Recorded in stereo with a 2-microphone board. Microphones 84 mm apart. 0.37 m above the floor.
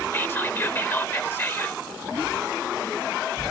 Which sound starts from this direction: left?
Whispering, at 0.1 s.